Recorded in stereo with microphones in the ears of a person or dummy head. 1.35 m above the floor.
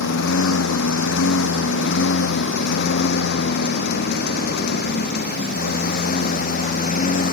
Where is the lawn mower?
80° left; by 7.3 s 45° left (ahead or behind).